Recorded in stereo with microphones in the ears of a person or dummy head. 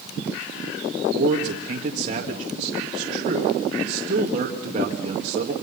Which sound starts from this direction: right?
A man speaking, at 1.1 s.